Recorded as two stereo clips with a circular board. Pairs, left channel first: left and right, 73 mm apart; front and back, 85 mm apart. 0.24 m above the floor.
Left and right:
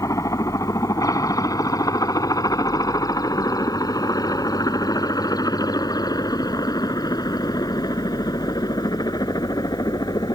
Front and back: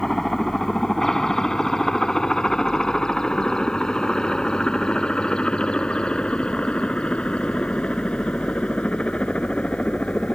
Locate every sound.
0.0 s a helicopter: 85° left; by 10.4 s 75° left